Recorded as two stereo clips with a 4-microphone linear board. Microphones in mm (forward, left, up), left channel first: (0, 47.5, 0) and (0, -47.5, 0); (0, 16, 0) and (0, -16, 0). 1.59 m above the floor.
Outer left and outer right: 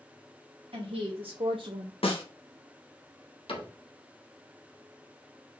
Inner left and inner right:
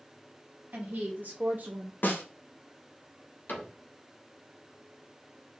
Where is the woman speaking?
85° right, 1.8 m; by 1.9 s 40° right (ahead or behind), 0.6 m.